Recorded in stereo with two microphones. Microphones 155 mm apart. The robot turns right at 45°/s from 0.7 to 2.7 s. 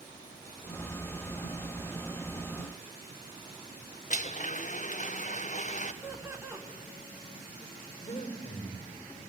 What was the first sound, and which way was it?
A blender, 50° left (ahead or behind).